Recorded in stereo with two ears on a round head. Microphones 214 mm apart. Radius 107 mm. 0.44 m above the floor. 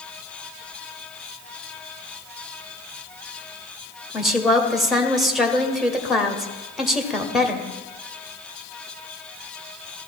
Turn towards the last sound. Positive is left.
turn(degrees=0)  # may be behind; listen again after turning